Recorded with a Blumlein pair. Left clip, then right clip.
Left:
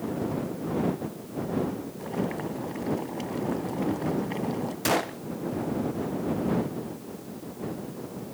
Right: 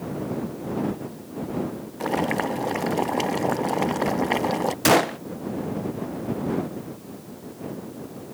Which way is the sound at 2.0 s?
55° right.